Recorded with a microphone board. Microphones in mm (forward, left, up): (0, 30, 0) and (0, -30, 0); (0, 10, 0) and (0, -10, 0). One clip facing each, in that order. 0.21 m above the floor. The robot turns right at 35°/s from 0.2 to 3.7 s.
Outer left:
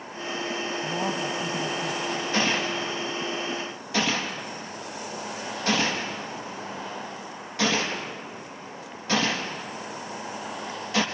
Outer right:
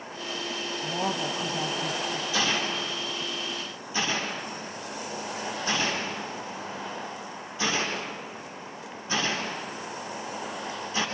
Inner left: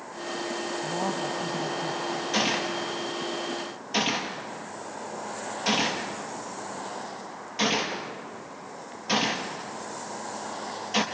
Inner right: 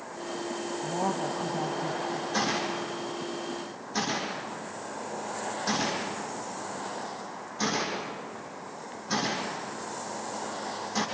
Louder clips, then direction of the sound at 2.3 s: Outer left 2 dB, inner left 3 dB; 50° left (ahead or behind).